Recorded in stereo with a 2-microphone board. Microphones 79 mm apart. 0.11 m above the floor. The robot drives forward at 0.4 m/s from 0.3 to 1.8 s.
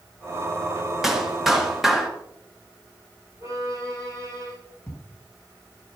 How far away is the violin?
About 7 m.